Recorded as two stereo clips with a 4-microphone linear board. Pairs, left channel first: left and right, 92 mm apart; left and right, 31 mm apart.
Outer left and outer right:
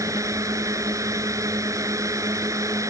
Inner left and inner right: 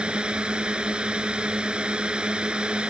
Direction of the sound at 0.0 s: 35° right (ahead or behind).